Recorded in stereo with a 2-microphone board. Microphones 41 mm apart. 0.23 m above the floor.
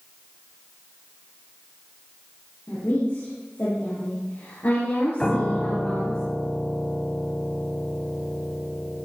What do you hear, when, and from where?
2.7 s a woman speaking: 75° left (ahead or behind), 6 m; by 6.2 s 70° left (ahead or behind), 4 m
5.2 s a piano: 15° left (ahead or behind), 1.3 m